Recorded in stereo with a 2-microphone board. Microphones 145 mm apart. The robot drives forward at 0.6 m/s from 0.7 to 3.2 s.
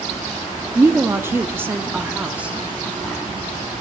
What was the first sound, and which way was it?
A woman speaking, 15° right (ahead or behind).